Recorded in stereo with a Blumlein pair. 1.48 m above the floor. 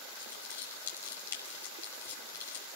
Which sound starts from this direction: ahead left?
Crumpling, at 0.1 s.